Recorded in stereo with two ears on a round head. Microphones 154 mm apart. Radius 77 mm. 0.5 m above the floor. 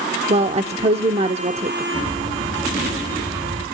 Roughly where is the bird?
Right.